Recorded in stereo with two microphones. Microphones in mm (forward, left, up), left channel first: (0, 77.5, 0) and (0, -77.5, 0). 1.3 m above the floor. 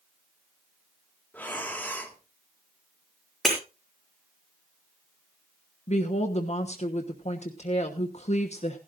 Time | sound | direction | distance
1.3 | breathing | 10° left (ahead or behind) | 1.8 m
3.5 | breaking glass | centre (ahead or behind) | 6 m
5.9 | a woman speaking | 45° left (ahead or behind) | 1.1 m